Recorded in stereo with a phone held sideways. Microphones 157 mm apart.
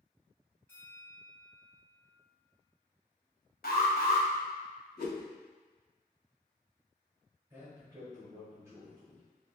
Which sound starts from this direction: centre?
A bell, at 0.7 s.